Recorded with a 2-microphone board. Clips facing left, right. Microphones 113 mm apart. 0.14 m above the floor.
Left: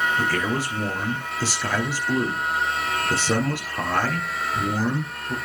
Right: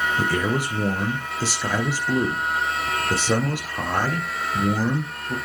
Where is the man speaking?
15° right (ahead or behind), 2 m.